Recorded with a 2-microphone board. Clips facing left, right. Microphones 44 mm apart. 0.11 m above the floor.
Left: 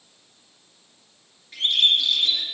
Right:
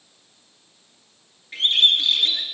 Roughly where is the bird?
Right.